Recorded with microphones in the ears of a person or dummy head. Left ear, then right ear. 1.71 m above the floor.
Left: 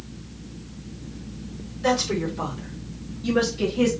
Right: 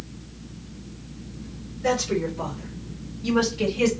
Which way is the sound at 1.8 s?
40° left (ahead or behind).